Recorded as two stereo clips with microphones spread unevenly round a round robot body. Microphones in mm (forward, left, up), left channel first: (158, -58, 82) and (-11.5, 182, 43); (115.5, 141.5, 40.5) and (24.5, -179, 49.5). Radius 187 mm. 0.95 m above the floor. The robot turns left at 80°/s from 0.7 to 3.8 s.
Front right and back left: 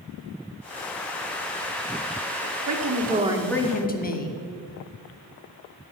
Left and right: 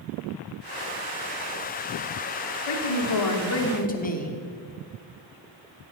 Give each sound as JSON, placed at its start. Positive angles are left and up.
{"t": 2.7, "sound": "a woman speaking", "azimuth_deg": 100, "distance_m": 2.5}